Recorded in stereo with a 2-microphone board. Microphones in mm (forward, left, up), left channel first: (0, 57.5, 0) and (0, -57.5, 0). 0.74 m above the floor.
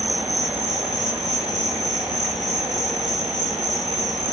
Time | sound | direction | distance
0.0 | an insect | 5° left (ahead or behind) | 2.5 m